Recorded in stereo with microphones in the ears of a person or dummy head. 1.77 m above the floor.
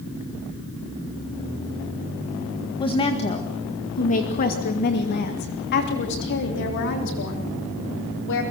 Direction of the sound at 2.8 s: 20° left (ahead or behind).